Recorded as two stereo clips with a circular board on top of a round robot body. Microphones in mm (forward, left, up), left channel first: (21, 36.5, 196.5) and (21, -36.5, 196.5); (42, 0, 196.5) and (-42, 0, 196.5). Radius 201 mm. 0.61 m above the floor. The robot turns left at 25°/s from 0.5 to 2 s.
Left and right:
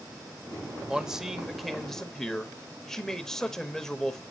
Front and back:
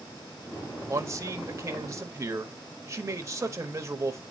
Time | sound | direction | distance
0.9 | a man speaking | 165° right | 1.2 m